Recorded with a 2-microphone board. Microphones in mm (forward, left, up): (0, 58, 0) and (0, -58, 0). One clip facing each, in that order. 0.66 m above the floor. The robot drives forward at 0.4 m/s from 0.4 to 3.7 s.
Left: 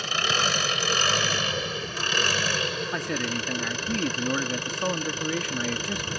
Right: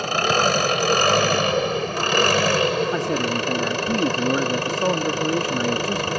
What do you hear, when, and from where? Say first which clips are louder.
0.0 s an engine running: right 8 dB; 55° right (ahead or behind); by 6.2 s 70° right (ahead or behind)
2.9 s a man speaking: right 7 dB; 30° right (ahead or behind); by 6.1 s 35° right (ahead or behind)